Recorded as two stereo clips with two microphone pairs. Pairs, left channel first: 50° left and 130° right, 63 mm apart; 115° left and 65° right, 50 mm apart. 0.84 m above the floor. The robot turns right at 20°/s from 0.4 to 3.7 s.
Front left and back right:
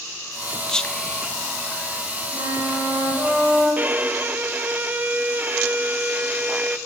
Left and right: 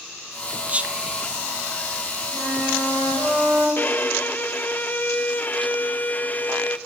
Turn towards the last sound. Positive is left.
turn(degrees=170)